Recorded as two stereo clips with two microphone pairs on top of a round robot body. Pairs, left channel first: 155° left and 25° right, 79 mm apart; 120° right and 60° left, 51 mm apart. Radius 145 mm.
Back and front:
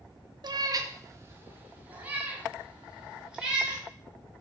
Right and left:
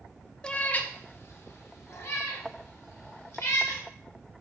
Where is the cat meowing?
50° right, 0.9 m; by 3.8 s 105° right, 4 m.